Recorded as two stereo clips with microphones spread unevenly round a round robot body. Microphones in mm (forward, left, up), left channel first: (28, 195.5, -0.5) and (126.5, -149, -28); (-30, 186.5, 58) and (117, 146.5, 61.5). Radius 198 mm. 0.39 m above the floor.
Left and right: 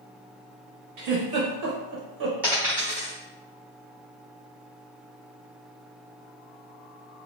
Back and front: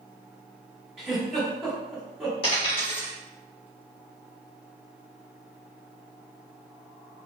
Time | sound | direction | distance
1.0 | a giggle | 100° right | 0.6 m
2.4 | a dropped coin | 160° right | 1.4 m